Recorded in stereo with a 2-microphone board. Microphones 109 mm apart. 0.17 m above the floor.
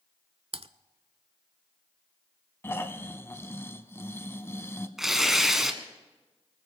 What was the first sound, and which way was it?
Typing on a keyboard, 65° right (ahead or behind).